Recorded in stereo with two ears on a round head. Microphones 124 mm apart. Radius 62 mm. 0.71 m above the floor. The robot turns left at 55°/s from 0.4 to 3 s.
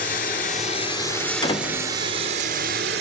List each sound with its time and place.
0.0 s running water: 60° left, 3.5 m; by 3.0 s 85° right, 3.5 m
1.4 s a door slam: 30° left (ahead or behind), 1.7 m; by 1.9 s 55° left (ahead or behind), 1.7 m